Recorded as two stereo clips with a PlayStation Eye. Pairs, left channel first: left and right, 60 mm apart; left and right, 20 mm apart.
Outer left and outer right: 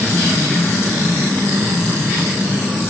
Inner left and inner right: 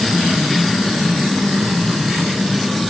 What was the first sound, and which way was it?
Only background noise.